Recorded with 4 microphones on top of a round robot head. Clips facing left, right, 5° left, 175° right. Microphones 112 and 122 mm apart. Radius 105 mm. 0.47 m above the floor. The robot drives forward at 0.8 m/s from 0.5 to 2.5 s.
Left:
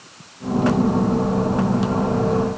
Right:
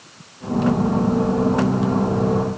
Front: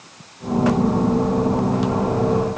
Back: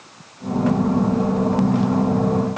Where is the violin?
No violin in this recording.